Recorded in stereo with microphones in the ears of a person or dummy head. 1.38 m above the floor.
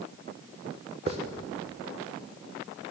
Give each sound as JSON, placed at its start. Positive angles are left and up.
{"t": 1.1, "sound": "a hiss", "side_deg": -30, "distance_m": 0.9}